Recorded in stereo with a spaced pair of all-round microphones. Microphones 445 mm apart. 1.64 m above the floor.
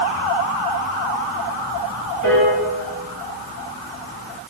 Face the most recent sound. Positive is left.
turn(degrees=40)  # may be behind; listen again after turning